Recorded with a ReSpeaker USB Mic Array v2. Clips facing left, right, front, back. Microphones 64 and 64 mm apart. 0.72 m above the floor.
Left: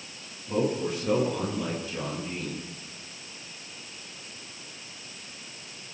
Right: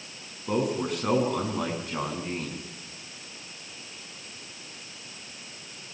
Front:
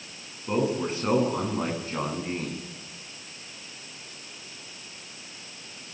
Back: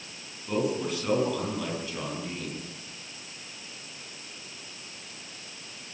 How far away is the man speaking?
About 8.5 m.